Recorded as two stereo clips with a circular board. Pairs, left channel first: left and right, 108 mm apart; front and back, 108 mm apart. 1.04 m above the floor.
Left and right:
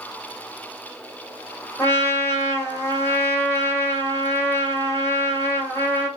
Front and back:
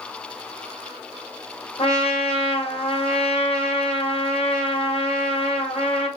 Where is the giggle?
I don't hear a giggle.